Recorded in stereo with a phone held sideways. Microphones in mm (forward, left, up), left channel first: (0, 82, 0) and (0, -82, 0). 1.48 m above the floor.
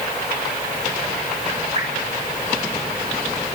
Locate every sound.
1.8 s dripping: 40° right (ahead or behind), 7.5 m